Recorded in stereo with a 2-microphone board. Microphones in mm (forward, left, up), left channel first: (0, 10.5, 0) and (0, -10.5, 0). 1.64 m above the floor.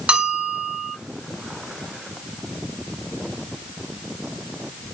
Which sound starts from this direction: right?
A bell, at 0.1 s.